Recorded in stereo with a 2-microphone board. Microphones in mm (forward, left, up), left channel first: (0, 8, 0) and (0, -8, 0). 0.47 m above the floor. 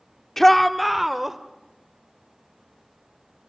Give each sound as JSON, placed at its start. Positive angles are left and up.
{"t": 0.4, "sound": "a shout", "side_deg": 20, "distance_m": 1.1}